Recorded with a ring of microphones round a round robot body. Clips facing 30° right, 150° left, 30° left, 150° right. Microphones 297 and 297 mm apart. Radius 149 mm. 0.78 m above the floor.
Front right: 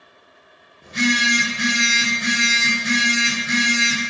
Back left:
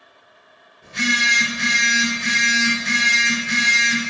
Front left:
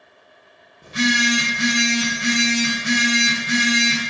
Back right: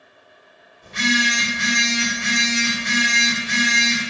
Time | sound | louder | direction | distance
0.8 | a phone buzzing | front right 5 dB, front left 2 dB | 30° left | 0.9 m